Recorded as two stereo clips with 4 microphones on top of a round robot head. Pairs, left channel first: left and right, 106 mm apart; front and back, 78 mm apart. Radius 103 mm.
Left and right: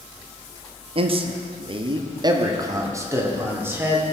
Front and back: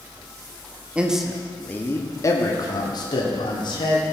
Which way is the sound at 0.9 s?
105° right.